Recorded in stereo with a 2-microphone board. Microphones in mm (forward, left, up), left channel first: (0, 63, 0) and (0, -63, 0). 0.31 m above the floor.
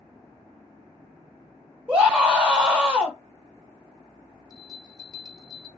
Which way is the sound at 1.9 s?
10° right (ahead or behind).